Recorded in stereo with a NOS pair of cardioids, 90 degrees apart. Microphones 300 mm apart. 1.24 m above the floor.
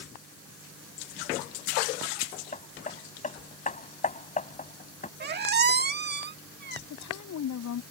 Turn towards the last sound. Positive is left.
turn(degrees=65)